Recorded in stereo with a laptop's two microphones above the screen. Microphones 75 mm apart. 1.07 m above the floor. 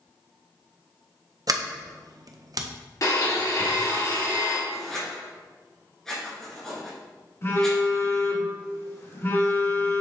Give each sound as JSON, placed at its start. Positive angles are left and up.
{"t": 1.5, "sound": "a sliding door", "side_deg": -55, "distance_m": 0.6}
{"t": 3.0, "sound": "a blender", "side_deg": 50, "distance_m": 1.7}
{"t": 4.7, "sound": "writing", "side_deg": 5, "distance_m": 2.5}
{"t": 7.4, "sound": "a phone buzzing", "side_deg": 35, "distance_m": 1.5}